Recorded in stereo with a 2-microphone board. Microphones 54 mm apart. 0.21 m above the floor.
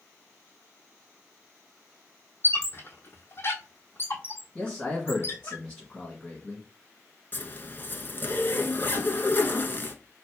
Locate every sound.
2.4 s a squeak: 45° left (ahead or behind), 1.0 m
4.5 s a man speaking: 15° left (ahead or behind), 2 m
7.3 s a zipper: 40° left (ahead or behind), 0.7 m